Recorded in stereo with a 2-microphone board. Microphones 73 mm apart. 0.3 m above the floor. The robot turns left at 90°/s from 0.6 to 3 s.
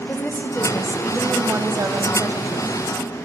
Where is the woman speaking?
30° left, 1.3 m; by 2.7 s 160° right, 1.3 m.